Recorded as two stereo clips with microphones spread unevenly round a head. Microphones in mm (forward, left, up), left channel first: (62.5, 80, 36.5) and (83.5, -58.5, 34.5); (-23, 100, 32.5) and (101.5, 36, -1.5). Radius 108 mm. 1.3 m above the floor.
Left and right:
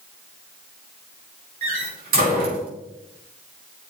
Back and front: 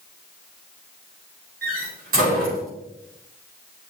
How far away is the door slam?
About 4 m.